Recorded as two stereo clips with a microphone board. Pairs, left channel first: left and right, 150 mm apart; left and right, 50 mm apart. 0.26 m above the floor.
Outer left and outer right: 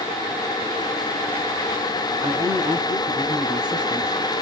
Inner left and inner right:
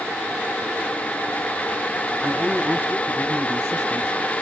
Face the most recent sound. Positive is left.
turn(degrees=-65)  # may be behind; listen again after turning